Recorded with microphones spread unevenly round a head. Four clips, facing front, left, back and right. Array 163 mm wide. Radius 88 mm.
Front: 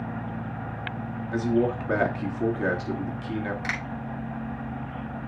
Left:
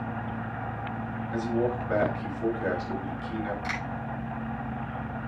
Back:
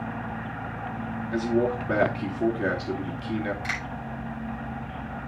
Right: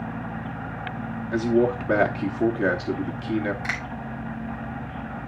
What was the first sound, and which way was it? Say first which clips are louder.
A man speaking: right 7 dB, front 1 dB; 85° right.